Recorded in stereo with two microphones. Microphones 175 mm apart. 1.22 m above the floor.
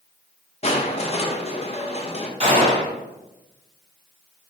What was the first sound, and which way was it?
Crushing, 35° left (ahead or behind).